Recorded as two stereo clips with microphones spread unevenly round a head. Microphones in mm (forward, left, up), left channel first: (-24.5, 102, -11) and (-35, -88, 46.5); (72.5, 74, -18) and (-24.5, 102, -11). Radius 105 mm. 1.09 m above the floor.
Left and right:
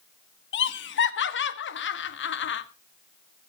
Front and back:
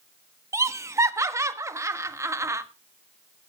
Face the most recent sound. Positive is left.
turn(degrees=100)